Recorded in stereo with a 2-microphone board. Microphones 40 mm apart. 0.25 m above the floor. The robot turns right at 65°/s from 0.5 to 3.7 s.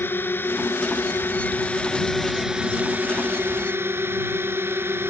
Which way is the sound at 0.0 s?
65° left.